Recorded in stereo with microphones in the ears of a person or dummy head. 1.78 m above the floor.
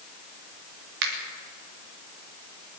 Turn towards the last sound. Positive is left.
turn(degrees=-65)  # may be behind; listen again after turning